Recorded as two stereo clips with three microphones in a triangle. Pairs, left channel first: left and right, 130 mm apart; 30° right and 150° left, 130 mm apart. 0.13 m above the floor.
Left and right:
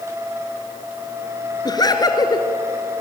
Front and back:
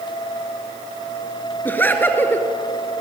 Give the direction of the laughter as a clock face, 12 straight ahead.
11 o'clock.